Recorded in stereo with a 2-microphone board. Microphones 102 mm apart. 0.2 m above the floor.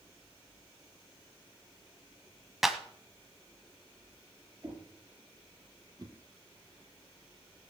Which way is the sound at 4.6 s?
20° right (ahead or behind).